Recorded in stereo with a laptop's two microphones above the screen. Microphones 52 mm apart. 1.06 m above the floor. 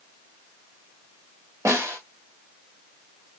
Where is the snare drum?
75° right (ahead or behind), 1.7 m.